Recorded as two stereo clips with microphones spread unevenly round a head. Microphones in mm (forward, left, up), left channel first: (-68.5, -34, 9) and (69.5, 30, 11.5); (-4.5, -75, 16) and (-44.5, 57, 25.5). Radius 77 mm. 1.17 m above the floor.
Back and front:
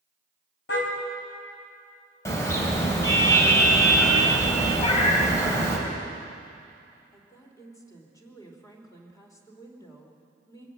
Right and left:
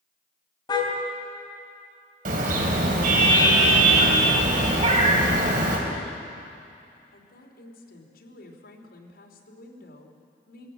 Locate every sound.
0.7 s a car horn: 135° right, 3.5 m
2.2 s a car horn: 130° left, 3.5 m
4.8 s a cat meowing: 150° left, 3 m
7.1 s a woman speaking: 85° right, 3 m